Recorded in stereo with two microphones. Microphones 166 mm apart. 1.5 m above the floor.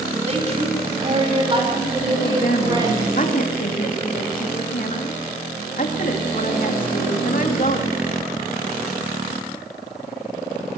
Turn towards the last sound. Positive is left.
turn(degrees=55)  # may be behind; listen again after turning